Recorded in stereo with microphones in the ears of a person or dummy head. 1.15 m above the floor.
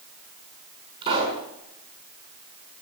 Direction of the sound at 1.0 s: 30° right (ahead or behind).